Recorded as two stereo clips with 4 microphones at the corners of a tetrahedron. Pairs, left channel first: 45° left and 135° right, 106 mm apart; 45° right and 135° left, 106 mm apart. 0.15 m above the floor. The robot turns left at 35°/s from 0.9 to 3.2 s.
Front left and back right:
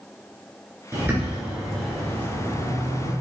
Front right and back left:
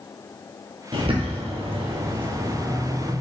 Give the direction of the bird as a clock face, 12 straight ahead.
7 o'clock.